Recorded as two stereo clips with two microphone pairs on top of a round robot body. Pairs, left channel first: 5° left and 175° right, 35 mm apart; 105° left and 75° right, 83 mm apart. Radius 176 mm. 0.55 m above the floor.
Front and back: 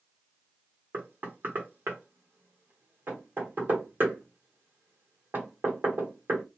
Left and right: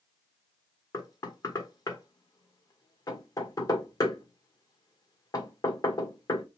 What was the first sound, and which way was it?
Knocking, 150° left.